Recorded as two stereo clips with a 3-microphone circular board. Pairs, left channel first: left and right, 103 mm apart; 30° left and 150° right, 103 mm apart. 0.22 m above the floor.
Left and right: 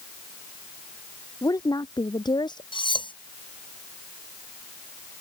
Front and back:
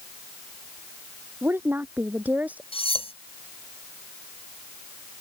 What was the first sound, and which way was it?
A woman speaking, 140° left.